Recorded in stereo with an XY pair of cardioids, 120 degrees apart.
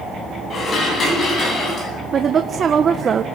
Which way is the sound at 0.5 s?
40° left.